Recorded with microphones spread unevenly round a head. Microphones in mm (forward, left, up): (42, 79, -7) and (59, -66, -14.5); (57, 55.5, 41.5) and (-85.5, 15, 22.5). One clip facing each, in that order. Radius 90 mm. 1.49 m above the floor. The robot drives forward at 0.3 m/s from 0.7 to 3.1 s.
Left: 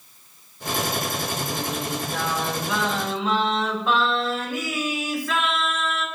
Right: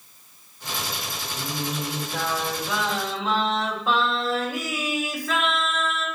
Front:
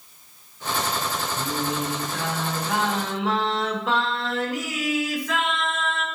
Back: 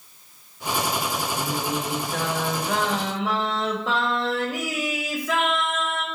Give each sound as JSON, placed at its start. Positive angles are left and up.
{"t": 1.4, "sound": "singing", "azimuth_deg": -160, "distance_m": 1.5}